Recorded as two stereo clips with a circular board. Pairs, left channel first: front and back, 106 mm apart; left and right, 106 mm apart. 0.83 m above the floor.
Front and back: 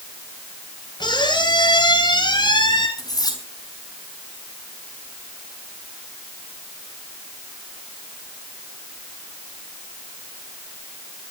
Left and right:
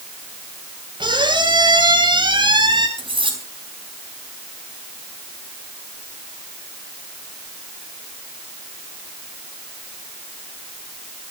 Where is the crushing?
No crushing in this recording.